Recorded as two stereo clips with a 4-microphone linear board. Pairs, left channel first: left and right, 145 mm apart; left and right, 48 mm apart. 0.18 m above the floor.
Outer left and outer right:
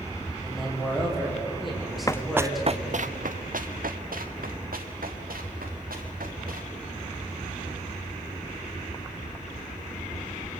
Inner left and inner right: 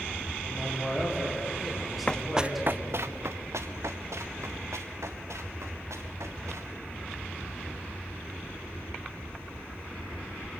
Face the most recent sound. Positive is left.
turn(degrees=-85)